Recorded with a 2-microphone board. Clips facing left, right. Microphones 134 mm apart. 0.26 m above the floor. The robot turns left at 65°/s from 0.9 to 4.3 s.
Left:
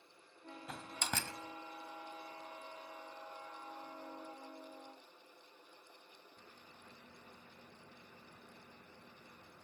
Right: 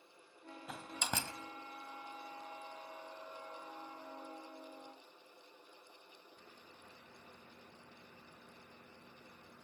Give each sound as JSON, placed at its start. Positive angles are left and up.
{"t": 0.7, "sound": "a door slam", "side_deg": -5, "distance_m": 1.4}